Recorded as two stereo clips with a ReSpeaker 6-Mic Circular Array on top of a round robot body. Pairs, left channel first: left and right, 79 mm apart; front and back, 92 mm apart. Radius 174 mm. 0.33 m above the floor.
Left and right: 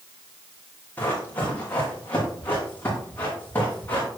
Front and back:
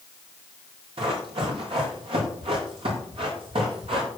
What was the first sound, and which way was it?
Running footsteps, 155° left.